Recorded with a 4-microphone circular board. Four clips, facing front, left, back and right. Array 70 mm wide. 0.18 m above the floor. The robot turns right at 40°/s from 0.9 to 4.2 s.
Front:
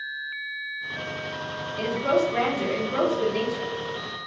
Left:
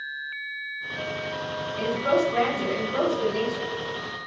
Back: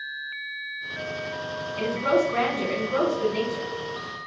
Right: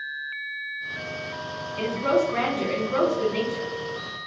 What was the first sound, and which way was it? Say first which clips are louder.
A woman speaking: right 1 dB, even; 165° right.